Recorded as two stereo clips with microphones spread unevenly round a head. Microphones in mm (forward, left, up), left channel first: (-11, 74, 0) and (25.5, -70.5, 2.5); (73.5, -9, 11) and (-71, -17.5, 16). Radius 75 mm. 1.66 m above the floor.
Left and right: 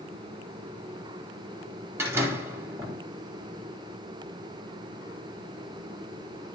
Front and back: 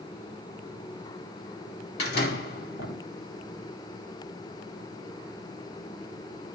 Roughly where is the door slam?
Ahead.